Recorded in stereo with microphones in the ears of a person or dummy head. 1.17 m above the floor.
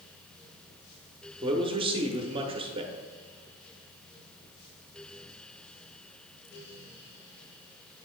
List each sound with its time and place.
1.4 s a man speaking: 30° right (ahead or behind), 1.2 m